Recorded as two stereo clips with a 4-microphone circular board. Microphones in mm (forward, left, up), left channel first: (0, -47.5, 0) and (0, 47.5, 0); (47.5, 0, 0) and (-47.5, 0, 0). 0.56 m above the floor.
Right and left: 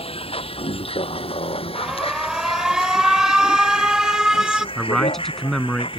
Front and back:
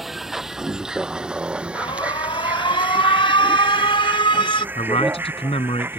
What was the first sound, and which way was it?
A vehicle, 90° right.